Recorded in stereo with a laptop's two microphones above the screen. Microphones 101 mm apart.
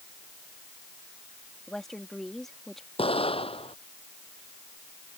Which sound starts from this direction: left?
An explosion, at 3.0 s.